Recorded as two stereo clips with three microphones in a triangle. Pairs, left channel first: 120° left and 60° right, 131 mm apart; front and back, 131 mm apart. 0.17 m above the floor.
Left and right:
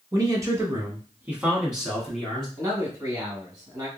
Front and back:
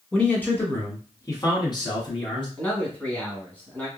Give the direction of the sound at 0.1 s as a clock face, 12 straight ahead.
2 o'clock.